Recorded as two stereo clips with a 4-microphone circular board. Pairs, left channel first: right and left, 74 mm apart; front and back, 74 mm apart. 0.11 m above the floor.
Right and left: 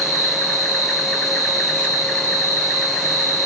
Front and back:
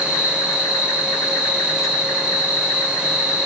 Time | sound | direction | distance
0.0 | an insect | 30° right | 1.7 m